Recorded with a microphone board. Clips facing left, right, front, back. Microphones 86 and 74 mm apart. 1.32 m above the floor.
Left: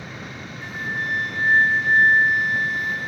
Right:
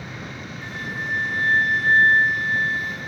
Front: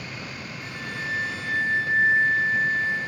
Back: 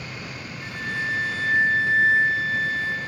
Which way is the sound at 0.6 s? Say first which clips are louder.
Left 3 dB, back 5 dB; 155° left.